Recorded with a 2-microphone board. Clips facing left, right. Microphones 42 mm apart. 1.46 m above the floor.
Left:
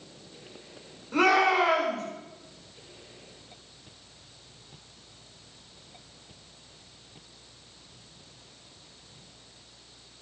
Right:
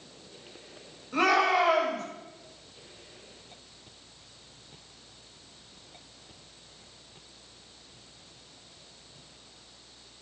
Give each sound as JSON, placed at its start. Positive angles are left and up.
{"t": 1.1, "sound": "a shout", "side_deg": 85, "distance_m": 7.0}